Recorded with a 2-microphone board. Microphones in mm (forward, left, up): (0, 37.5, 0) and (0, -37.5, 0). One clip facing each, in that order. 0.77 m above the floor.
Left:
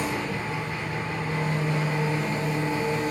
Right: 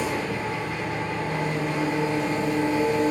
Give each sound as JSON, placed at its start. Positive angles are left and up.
{"t": 0.0, "sound": "an engine running", "side_deg": -65, "distance_m": 0.8}